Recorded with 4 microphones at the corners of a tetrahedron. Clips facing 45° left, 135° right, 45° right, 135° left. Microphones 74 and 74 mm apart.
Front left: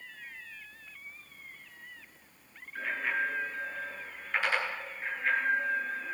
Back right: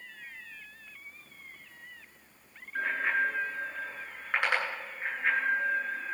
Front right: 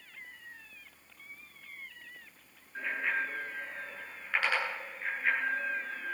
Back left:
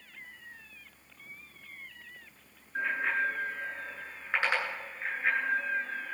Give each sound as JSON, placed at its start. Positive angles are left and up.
{"t": 2.8, "sound": "a bicycle bell", "azimuth_deg": -160, "distance_m": 8.0}